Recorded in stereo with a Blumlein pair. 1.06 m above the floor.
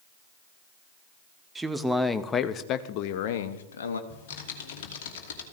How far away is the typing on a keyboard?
About 1.8 m.